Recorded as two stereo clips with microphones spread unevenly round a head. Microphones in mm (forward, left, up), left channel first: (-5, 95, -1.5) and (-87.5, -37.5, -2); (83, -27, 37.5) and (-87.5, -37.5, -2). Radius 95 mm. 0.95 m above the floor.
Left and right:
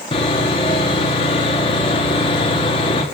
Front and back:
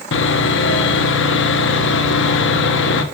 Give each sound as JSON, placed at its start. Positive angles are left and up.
{"t": 0.1, "sound": "sawing", "azimuth_deg": -5, "distance_m": 1.4}